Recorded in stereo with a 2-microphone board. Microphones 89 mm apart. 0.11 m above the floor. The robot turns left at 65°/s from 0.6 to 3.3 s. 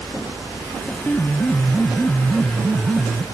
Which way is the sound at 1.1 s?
20° left (ahead or behind).